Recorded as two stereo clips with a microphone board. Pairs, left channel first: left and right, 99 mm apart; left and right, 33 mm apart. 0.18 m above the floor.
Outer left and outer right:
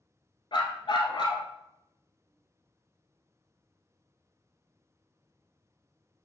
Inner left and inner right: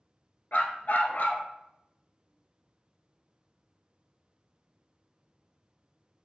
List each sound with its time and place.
0.5 s a dog barking: 60° left (ahead or behind), 0.8 m